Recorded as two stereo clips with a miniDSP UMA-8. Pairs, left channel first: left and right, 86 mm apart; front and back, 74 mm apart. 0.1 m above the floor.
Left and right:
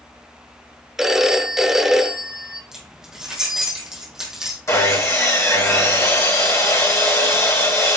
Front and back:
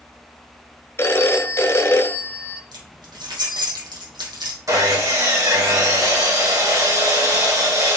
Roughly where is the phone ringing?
Ahead.